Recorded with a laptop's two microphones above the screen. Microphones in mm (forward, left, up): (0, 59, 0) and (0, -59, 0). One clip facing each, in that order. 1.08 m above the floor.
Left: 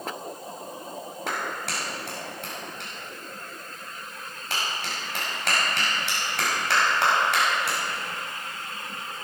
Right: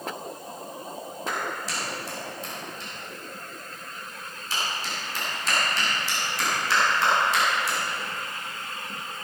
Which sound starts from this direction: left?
A clap, at 1.3 s.